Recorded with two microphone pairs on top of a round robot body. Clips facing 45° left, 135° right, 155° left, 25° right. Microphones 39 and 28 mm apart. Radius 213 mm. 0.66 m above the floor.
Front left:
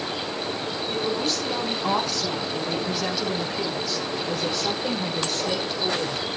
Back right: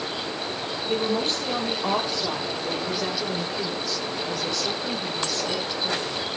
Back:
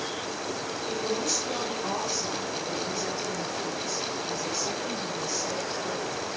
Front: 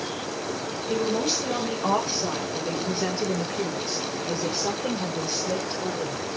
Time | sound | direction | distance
0.9 | a woman speaking | 80° right | 4.5 m